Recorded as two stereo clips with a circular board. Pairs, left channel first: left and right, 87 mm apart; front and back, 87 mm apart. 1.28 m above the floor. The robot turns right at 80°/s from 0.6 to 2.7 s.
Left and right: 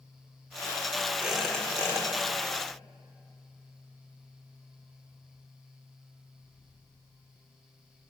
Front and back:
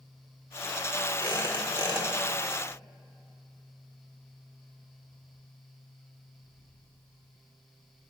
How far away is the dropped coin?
No dropped coin in this recording.